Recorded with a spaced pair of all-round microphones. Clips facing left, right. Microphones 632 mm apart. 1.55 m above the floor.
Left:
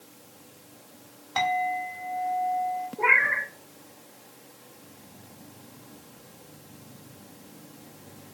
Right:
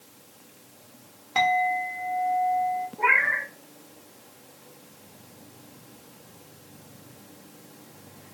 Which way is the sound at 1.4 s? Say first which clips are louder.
Right 3 dB; 50° right (ahead or behind).